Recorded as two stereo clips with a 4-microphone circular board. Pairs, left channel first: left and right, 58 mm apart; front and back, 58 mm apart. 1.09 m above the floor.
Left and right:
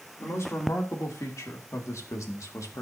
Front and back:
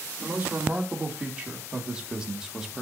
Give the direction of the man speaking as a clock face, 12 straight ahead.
8 o'clock.